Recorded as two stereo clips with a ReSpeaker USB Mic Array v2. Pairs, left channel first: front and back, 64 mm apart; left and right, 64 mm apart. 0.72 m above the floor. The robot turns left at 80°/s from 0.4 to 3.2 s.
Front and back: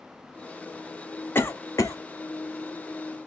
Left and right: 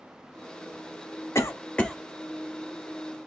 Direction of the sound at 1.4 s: 55° left.